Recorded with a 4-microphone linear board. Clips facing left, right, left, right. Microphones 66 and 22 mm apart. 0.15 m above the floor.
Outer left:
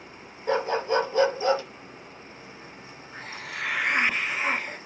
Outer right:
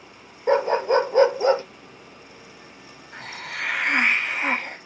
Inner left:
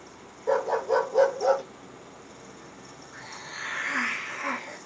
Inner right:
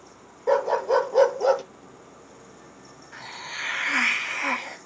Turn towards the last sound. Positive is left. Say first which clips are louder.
# outer right 3 dB, inner right 5 dB
turn(degrees=-70)  # may be behind; listen again after turning